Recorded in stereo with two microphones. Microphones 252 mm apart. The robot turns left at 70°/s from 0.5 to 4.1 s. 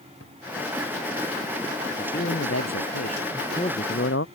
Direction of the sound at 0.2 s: 65° left (ahead or behind).